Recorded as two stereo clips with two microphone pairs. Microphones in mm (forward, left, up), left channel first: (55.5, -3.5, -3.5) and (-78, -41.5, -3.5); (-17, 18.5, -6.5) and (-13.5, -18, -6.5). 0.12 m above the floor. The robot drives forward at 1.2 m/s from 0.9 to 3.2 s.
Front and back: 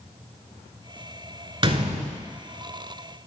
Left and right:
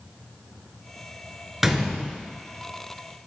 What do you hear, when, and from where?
1.6 s a gunshot: 160° right, 0.7 m; by 2.2 s 175° right, 1.3 m